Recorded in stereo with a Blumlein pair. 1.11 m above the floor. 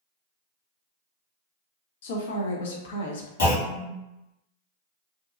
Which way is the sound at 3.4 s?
60° left.